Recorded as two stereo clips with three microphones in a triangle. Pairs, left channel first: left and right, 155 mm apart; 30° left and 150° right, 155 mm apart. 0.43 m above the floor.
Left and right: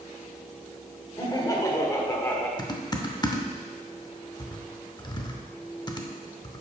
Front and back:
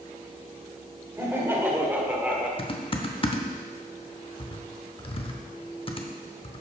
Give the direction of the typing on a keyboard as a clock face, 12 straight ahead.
10 o'clock.